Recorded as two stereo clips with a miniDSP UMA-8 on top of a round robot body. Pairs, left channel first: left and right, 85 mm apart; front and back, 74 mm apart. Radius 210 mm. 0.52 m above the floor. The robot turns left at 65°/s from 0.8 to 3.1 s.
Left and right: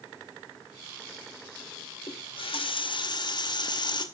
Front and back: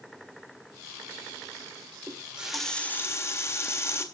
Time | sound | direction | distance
2.1 | a running tap | 125° left | 2 m